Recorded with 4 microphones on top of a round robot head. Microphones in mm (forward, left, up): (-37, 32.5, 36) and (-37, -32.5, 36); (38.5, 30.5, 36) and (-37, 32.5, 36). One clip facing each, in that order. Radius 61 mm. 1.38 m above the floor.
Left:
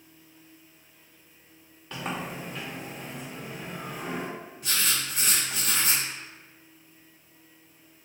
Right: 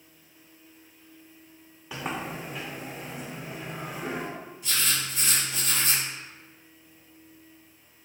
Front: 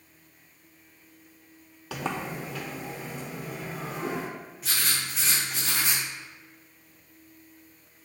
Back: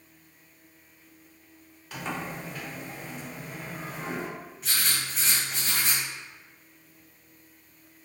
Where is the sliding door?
5° right, 0.5 m.